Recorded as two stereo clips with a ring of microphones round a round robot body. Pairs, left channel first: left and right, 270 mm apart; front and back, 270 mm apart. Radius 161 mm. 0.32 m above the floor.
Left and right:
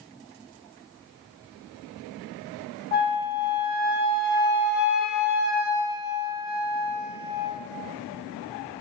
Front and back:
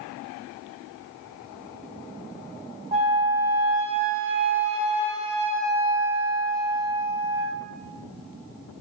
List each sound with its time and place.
2.9 s a flute: 125° left, 0.6 m